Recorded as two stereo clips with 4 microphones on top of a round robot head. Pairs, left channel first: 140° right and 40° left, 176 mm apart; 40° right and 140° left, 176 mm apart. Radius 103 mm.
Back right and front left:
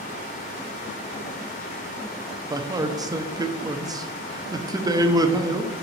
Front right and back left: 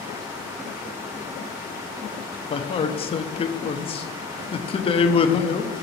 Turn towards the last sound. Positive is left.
turn(degrees=-15)